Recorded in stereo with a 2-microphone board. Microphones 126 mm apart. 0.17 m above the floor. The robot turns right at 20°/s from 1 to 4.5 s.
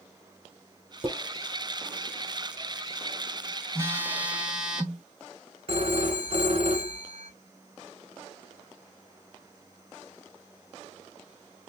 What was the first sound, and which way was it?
Dishes clattering, 50° right (ahead or behind).